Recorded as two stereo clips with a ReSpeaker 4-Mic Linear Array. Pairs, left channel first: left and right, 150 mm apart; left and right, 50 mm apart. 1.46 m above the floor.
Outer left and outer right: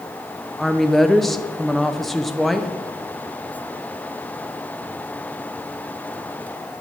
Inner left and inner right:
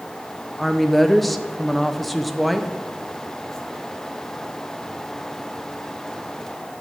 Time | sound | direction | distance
0.6 | a woman speaking | centre (ahead or behind) | 0.6 m